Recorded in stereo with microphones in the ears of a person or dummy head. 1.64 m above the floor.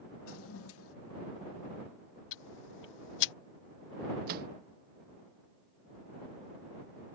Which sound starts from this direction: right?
A microwave, at 4.3 s.